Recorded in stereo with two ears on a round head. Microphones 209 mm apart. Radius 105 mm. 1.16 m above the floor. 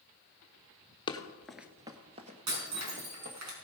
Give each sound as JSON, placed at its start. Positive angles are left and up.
{"t": 1.1, "sound": "running footsteps", "side_deg": 20, "distance_m": 1.2}
{"t": 2.5, "sound": "breaking glass", "side_deg": -80, "distance_m": 5.0}